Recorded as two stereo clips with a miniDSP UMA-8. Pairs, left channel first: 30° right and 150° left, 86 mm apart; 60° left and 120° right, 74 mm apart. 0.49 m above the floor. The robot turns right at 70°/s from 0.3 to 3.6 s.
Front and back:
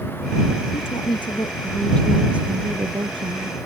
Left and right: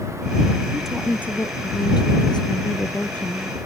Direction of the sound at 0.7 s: 40° right.